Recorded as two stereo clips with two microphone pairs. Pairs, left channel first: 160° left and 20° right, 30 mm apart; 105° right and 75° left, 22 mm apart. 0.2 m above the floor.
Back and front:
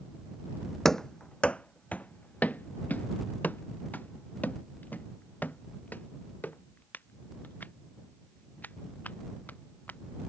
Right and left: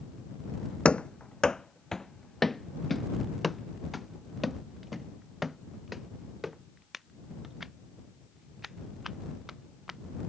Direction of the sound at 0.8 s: 125° right.